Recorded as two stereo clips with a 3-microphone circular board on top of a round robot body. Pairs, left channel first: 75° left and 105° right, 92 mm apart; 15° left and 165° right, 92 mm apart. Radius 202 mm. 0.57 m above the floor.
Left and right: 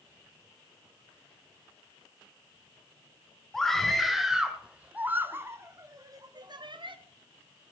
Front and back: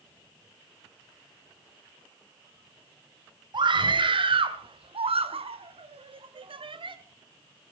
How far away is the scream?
About 3 m.